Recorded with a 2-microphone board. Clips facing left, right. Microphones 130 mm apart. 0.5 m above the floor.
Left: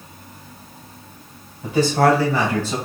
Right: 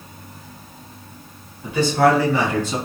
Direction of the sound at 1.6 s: 40° left (ahead or behind).